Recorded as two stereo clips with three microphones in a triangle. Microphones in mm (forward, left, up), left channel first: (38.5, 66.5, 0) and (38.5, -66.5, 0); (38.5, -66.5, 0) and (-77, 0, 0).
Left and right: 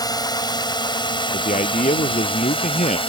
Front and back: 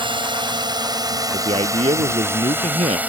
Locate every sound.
0.0 s a drone: 130° left; by 3.1 s 75° left
1.3 s a man speaking: 110° left